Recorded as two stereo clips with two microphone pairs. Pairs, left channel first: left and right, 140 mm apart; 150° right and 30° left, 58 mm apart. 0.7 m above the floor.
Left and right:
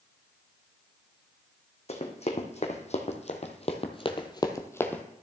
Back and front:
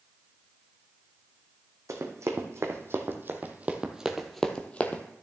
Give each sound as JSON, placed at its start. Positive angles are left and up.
{"t": 1.9, "sound": "running footsteps", "azimuth_deg": 55, "distance_m": 1.8}